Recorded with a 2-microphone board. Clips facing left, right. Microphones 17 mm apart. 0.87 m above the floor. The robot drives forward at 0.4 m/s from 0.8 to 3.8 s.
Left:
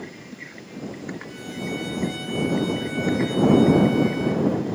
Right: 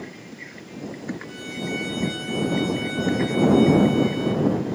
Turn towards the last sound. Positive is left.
turn(degrees=-10)  # may be behind; listen again after turning